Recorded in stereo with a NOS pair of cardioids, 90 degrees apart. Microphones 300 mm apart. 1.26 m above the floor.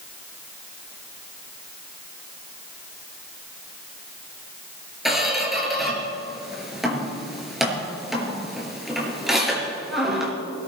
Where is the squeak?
Straight ahead, 4.5 m.